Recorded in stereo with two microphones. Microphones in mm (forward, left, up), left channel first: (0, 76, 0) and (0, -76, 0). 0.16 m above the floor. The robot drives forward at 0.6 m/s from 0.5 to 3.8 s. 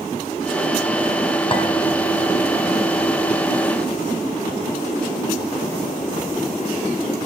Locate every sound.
1.5 s a clink: 35° left (ahead or behind), 1.4 m; by 1.6 s 40° left (ahead or behind), 1.4 m